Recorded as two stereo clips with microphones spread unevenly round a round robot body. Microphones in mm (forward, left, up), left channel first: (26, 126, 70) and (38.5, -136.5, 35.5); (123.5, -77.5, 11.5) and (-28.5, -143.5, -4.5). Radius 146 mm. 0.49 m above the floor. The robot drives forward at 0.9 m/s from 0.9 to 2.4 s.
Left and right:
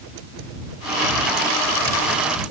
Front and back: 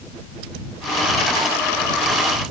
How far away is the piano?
No piano in this recording.